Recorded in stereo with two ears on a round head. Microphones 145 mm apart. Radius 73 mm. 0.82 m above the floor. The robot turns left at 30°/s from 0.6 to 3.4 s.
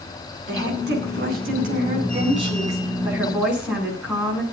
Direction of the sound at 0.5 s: 90° right.